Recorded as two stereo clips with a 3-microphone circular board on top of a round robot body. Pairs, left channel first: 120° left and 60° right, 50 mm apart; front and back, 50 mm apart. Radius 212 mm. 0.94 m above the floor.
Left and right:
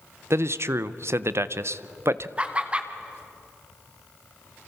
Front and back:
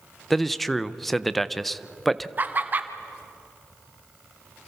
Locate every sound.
0.3 s a man speaking: 85° right, 0.8 m
2.4 s laughter: 125° right, 1.9 m